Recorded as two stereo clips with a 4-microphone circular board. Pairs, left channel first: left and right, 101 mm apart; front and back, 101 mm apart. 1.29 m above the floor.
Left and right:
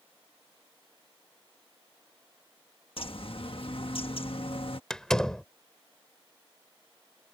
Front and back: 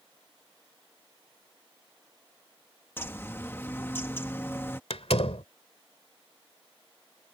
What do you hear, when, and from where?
3.0 s a bird: 65° left
4.9 s a door slam: 5° left